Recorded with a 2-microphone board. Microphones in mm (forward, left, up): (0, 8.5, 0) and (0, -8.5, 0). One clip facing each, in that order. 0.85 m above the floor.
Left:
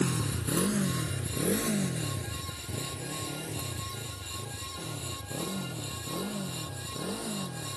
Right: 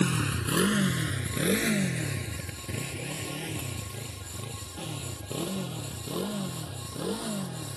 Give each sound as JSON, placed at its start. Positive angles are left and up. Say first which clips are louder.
{"t": 0.0, "sound": "a motorcycle", "louder": "right 3 dB", "side_deg": -65}